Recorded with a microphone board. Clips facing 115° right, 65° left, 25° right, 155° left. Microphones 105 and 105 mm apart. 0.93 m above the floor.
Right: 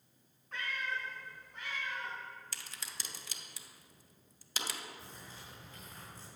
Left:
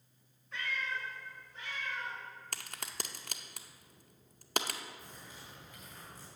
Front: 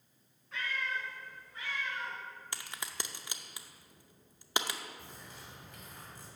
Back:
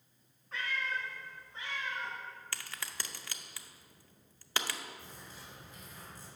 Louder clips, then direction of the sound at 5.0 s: Even, even; 50° right.